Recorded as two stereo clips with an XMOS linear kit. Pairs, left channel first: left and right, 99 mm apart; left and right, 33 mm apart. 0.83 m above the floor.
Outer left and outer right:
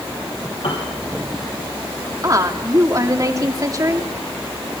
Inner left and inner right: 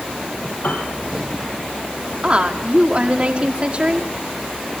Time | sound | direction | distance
0.6 | a piano | 65° left (ahead or behind) | 5.5 m
2.2 | a woman speaking | 35° right (ahead or behind) | 2 m